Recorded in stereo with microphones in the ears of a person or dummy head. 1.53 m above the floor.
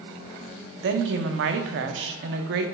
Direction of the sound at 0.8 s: 65° right (ahead or behind).